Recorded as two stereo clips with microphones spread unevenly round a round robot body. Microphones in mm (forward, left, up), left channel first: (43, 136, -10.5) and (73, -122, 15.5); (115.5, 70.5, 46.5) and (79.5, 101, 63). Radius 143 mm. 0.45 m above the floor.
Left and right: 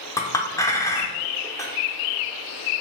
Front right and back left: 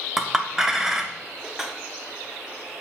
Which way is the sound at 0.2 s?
35° left.